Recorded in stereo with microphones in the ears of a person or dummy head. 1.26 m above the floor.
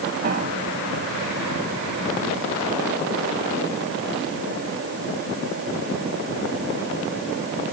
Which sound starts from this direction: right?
A piano, at 0.2 s.